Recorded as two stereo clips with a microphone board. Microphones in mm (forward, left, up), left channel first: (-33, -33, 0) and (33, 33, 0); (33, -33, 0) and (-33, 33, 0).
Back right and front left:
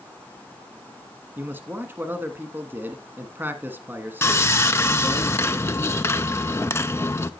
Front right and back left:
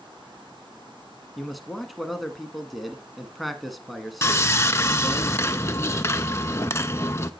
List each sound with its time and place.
1.4 s a man speaking: 45° left, 1.1 m
4.2 s sawing: 90° right, 0.6 m